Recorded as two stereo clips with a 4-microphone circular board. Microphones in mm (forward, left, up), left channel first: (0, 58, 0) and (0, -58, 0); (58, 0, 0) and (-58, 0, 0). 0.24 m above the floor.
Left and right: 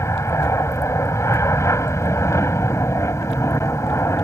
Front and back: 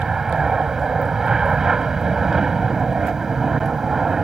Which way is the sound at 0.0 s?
100° left.